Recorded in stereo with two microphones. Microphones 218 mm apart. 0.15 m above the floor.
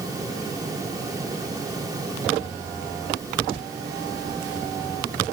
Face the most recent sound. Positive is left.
No sound to turn to.